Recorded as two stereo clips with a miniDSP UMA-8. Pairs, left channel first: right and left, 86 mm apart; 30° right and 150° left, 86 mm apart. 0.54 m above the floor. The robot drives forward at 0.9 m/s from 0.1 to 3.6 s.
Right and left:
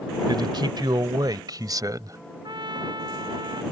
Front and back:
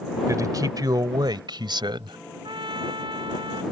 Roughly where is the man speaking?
Left.